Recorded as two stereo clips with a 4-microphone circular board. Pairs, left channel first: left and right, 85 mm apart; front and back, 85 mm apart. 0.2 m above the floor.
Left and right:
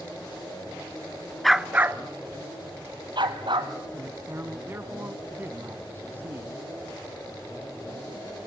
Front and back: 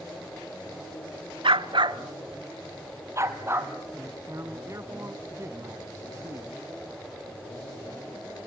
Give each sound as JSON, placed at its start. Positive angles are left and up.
{"t": 1.4, "sound": "a dog barking", "azimuth_deg": 175, "distance_m": 0.7}
{"t": 4.0, "sound": "a man speaking", "azimuth_deg": -145, "distance_m": 1.3}